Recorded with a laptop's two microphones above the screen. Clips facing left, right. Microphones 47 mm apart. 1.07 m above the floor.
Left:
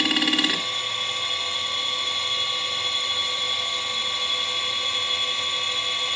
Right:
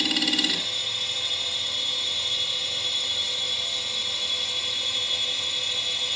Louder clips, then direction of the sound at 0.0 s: Left 3 dB; 35° left (ahead or behind).